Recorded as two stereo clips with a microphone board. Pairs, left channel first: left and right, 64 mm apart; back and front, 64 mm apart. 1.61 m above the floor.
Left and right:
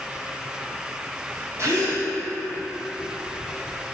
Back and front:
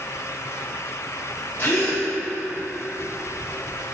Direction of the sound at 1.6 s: 130° right.